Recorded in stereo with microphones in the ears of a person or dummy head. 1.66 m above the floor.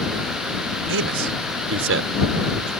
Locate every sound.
0.9 s a man speaking: 65° right (ahead or behind)